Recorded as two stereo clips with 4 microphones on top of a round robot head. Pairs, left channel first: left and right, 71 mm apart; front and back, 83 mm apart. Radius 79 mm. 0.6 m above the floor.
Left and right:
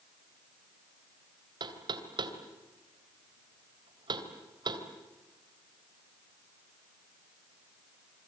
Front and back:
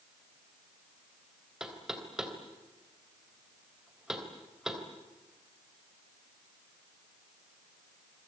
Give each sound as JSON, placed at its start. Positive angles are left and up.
{"t": 1.6, "sound": "knocking", "azimuth_deg": -95, "distance_m": 2.5}